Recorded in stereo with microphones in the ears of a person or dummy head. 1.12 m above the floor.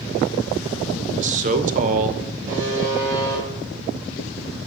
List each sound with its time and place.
1.1 s a man speaking: 40° right (ahead or behind), 0.9 m
2.5 s a buzzer: 40° right (ahead or behind), 6 m